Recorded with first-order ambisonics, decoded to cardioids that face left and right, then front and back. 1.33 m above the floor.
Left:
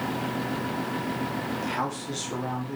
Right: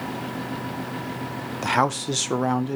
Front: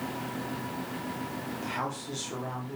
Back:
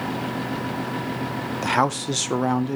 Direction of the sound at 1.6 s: 140° right.